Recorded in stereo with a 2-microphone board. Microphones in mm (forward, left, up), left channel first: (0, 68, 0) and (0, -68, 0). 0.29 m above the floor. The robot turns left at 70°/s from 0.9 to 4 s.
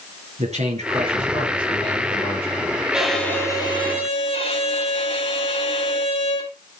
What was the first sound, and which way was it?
A man speaking, 120° right.